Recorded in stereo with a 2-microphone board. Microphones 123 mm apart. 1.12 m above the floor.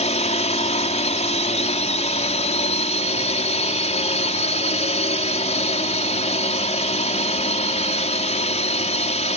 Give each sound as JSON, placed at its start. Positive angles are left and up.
{"t": 0.0, "sound": "a drone", "side_deg": 65}